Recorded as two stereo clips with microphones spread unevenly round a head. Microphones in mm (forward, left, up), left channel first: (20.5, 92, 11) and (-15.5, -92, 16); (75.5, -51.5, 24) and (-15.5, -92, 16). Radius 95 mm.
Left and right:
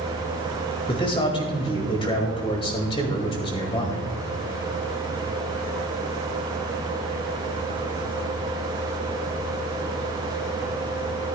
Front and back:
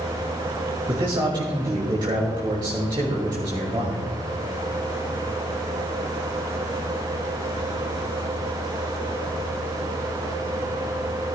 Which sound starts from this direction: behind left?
A man speaking, at 0.9 s.